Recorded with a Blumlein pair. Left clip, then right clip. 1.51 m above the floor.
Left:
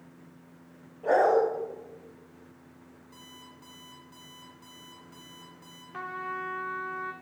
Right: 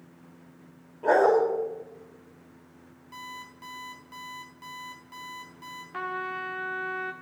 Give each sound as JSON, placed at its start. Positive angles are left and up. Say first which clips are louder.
{"t": 1.0, "sound": "a dog barking", "louder": "right 2 dB", "azimuth_deg": -55, "distance_m": 2.5}
{"t": 3.1, "sound": "an alarm clock", "louder": "right 10 dB", "azimuth_deg": -60, "distance_m": 4.0}
{"t": 5.9, "sound": "a trumpet", "louder": "right 2 dB", "azimuth_deg": -25, "distance_m": 1.1}